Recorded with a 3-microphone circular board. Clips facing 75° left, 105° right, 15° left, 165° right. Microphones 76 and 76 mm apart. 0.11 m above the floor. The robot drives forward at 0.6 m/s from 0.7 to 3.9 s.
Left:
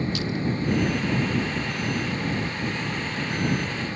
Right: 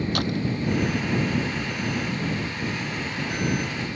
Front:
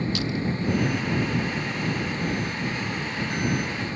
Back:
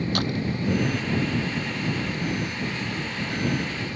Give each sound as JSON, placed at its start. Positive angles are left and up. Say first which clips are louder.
{"t": 0.1, "sound": "a door slam", "louder": "right 1 dB, back 1 dB", "azimuth_deg": -130}